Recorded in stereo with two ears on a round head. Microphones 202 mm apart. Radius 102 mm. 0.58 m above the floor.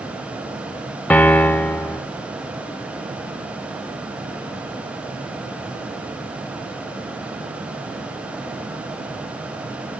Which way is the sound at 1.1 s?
5° left (ahead or behind).